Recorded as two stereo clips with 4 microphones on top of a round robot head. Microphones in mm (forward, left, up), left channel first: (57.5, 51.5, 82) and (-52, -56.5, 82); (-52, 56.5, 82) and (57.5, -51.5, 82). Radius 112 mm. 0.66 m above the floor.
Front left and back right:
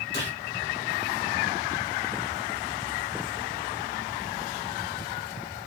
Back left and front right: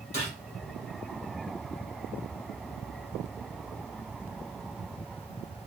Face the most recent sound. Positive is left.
turn(degrees=100)